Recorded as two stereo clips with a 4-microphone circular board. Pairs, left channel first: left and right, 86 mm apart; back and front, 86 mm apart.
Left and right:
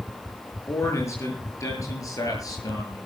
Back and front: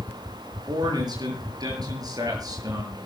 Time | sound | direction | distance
0.7 | a man speaking | 35° left | 7.5 m